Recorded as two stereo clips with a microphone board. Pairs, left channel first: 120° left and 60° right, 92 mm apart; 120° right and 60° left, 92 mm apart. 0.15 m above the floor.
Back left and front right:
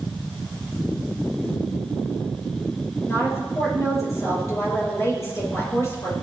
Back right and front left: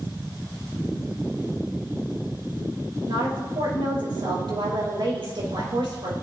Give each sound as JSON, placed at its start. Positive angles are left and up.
{"t": 3.1, "sound": "a woman speaking", "azimuth_deg": 70, "distance_m": 4.5}